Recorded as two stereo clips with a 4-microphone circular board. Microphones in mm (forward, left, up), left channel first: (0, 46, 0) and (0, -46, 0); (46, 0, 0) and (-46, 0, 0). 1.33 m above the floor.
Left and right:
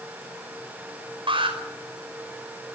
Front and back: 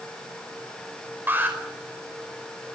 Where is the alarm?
110° right, 5 m.